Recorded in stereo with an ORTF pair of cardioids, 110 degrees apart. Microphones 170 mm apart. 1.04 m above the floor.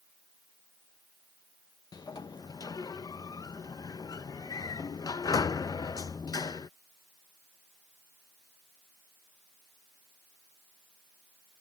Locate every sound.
1.9 s a sliding door: 25° left